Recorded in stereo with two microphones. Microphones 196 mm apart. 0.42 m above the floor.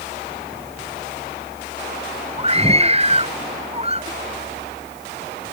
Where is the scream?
30° right (ahead or behind).